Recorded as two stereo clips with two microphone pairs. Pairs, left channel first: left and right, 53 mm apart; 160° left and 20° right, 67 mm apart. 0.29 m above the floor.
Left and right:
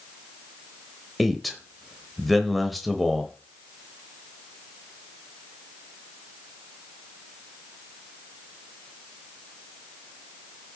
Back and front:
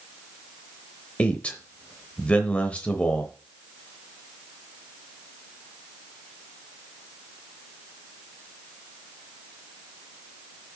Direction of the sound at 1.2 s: Straight behind.